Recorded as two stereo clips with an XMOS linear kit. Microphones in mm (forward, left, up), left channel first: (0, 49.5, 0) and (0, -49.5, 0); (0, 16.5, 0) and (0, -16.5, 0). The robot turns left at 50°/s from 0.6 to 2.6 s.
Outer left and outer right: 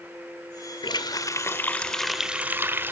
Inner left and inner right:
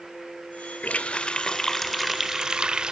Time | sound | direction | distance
0.8 | a running tap | 65° left | 0.9 m